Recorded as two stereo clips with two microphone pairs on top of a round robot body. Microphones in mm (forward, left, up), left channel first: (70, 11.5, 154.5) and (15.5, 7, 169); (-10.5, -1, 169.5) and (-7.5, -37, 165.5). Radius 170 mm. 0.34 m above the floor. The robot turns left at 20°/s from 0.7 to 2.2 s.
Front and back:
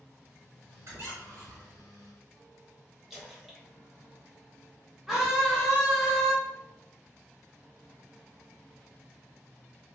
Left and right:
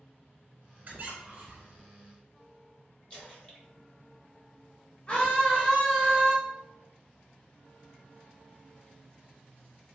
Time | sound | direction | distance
0.8 | a squeak | 135° right | 0.8 m
3.1 | a splash | 60° left | 1.5 m
5.1 | a scream | 70° left | 1.1 m